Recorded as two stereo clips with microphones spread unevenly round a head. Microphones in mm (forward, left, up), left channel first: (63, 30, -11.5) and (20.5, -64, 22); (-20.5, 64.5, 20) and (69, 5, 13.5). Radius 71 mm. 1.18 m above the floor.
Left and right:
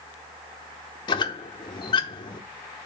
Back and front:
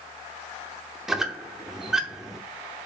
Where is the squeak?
55° left, 0.8 m.